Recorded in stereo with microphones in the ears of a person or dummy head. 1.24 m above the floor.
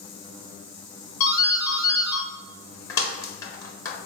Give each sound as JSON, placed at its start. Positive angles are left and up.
{"t": 1.2, "sound": "a doorbell", "side_deg": 15, "distance_m": 1.0}